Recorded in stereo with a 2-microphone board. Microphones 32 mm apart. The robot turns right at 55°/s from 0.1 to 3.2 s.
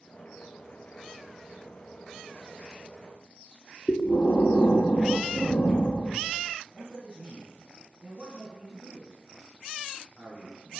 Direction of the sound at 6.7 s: 40° right (ahead or behind).